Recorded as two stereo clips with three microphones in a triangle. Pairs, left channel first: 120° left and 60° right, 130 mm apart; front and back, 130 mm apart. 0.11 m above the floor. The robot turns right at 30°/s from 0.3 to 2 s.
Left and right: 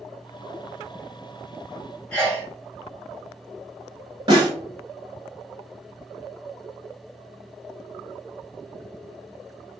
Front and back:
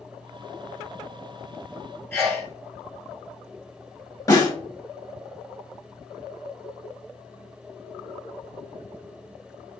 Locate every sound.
2.1 s a sneeze: 50° left, 1.1 m
4.3 s a snare drum: 45° right, 0.7 m